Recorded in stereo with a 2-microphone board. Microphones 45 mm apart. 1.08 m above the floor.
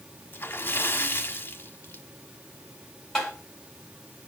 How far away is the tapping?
About 5 m.